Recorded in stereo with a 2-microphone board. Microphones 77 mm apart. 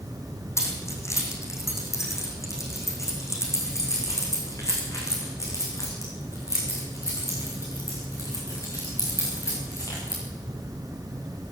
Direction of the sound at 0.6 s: 40° left (ahead or behind).